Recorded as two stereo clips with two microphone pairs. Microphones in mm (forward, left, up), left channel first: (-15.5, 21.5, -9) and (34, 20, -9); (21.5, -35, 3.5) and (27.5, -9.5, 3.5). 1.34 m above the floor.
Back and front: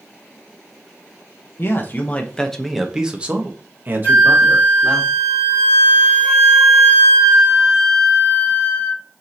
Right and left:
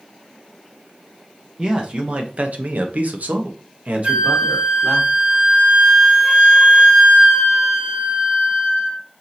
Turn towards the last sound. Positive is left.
turn(degrees=115)